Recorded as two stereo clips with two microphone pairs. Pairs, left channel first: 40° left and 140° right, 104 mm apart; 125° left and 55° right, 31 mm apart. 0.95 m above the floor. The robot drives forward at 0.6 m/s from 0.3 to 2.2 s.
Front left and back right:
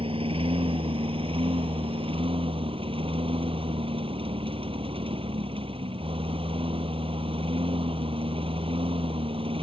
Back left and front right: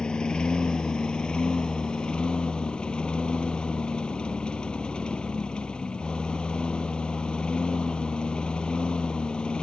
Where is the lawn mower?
170° right.